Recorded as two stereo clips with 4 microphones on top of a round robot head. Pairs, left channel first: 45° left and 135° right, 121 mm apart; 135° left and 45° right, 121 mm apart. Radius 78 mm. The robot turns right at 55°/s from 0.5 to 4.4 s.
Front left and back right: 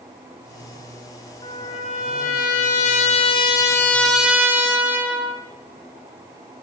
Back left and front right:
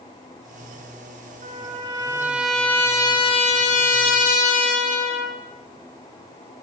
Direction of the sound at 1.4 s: 15° right.